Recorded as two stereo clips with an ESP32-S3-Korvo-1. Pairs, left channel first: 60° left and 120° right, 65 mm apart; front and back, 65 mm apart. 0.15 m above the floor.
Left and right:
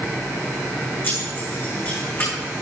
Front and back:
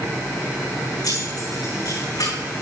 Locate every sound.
1.0 s keys jangling: 5° left, 7.5 m